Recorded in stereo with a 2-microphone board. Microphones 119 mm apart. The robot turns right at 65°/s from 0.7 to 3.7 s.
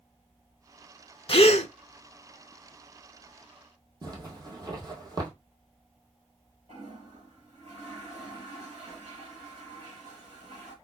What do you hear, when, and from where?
1.3 s a gasp: 50° left (ahead or behind), 0.5 m; by 1.7 s 70° left (ahead or behind), 0.5 m
4.0 s a zipper: 35° right (ahead or behind), 1.8 m
6.7 s a toilet flushing: 75° right (ahead or behind), 4 m